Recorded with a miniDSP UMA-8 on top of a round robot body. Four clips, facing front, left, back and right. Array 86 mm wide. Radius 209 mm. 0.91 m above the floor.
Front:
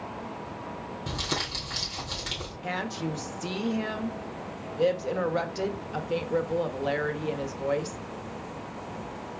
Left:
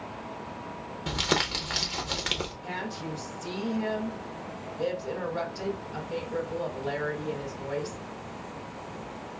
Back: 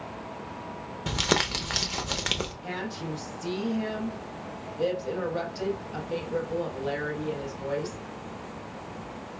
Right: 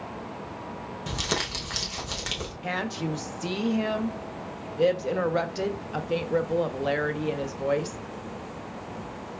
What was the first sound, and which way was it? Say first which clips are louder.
Crumpling: left 3 dB, back 8 dB; 165° left.